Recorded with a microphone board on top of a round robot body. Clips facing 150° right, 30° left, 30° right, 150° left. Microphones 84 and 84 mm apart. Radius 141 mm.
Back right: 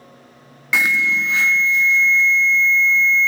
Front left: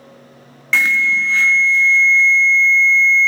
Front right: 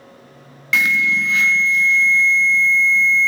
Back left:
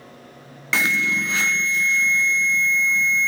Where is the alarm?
140° left, 0.9 m.